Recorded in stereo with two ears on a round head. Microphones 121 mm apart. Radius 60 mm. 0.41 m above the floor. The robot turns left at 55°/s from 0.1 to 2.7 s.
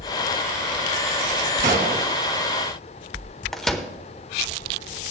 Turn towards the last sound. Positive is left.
turn(degrees=5)  # may be behind; listen again after turning